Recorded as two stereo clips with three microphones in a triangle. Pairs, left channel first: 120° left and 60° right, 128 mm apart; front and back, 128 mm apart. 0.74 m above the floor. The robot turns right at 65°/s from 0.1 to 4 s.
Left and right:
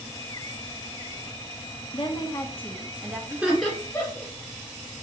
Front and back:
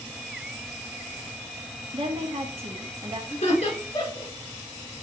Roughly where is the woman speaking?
Behind left.